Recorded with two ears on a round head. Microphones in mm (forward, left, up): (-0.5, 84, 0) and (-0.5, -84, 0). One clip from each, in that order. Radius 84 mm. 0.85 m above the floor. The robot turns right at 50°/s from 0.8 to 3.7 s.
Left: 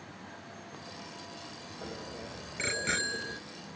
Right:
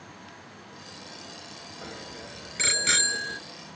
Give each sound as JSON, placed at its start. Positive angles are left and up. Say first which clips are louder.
{"t": 1.8, "sound": "a bicycle bell", "louder": "right 1 dB", "azimuth_deg": -130}